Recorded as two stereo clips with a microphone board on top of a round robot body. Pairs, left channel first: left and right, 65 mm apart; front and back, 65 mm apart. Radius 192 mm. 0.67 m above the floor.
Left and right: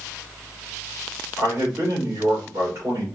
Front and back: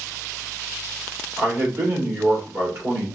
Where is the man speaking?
140° right, 3 m.